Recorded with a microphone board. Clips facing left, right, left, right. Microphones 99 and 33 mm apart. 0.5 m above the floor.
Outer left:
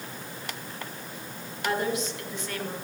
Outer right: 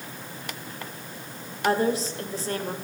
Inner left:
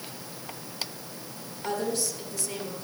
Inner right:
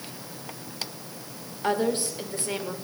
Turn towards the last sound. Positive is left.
turn(degrees=-35)  # may be behind; listen again after turning